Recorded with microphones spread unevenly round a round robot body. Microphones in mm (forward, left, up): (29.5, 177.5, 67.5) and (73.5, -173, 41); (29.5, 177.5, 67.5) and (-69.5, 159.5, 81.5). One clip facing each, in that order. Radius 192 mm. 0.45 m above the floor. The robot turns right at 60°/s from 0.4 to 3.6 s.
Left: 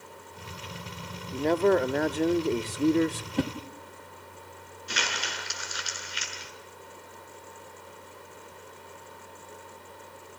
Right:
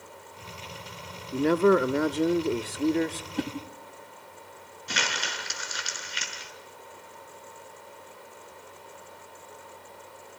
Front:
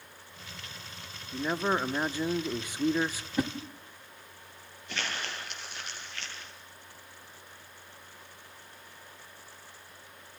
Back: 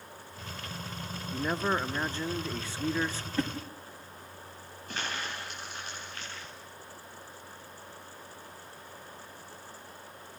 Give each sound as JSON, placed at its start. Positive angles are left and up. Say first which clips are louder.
{"t": 1.3, "sound": "a man speaking", "louder": "right 2 dB, front 1 dB", "azimuth_deg": -70, "distance_m": 0.8}
{"t": 3.4, "sound": "a whoosh", "louder": "left 3 dB, front 1 dB", "azimuth_deg": 85, "distance_m": 1.3}
{"t": 4.9, "sound": "crumpling", "louder": "right 1 dB, even", "azimuth_deg": -100, "distance_m": 5.5}